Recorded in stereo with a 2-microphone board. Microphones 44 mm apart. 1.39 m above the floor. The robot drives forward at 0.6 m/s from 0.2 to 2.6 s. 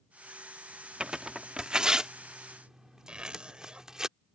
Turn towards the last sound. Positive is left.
turn(degrees=-25)  # may be behind; listen again after turning